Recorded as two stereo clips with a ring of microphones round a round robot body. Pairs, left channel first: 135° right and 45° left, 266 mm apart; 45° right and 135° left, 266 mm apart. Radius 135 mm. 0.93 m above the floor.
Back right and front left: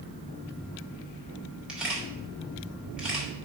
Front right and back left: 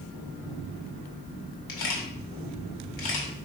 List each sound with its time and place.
1.7 s a camera shutter: 40° right, 2 m